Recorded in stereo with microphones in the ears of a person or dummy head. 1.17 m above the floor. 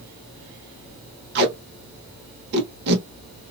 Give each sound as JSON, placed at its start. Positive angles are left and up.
{"t": 1.4, "sound": "tape being pulled", "side_deg": -60, "distance_m": 1.2}